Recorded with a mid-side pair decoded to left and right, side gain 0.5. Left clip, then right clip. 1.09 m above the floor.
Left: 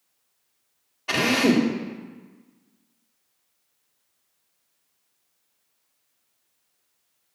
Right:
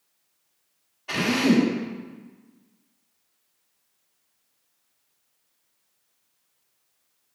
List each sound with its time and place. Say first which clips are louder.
1.1 s a drill: left 2 dB; 55° left, 2 m